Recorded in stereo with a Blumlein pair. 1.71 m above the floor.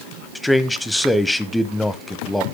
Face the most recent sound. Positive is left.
turn(degrees=5)